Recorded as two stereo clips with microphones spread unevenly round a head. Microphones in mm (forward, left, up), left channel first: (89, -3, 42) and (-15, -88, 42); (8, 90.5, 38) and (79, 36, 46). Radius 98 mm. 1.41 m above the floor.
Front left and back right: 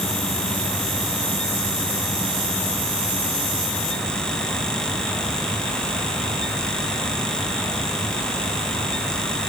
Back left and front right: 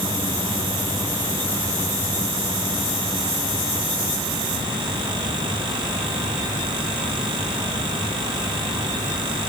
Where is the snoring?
No snoring in this recording.